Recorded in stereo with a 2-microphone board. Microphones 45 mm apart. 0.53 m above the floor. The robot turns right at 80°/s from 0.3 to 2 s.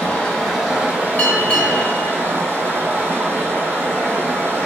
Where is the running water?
155° left, 1.4 m; by 4.7 s 70° right, 1.4 m.